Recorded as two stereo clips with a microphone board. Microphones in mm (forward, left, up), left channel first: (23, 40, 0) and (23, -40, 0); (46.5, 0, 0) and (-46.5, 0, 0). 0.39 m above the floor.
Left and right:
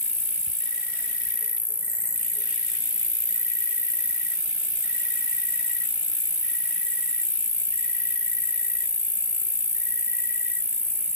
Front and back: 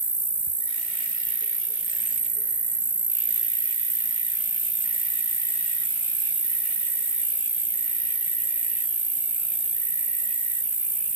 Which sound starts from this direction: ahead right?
An insect, at 0.0 s.